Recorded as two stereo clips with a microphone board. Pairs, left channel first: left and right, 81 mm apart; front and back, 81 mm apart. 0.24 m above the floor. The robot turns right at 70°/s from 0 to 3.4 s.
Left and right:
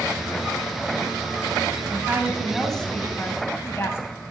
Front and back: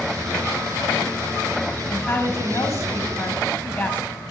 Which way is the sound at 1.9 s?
50° right.